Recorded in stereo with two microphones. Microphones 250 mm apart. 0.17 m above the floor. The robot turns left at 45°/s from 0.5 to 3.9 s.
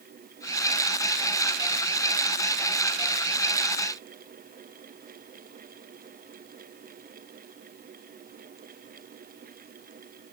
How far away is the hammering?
I don't hear hammering.